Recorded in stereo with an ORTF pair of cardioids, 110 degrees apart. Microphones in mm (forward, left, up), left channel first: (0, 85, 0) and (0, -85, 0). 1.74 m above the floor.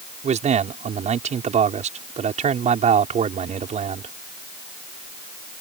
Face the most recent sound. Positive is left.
turn(degrees=-45)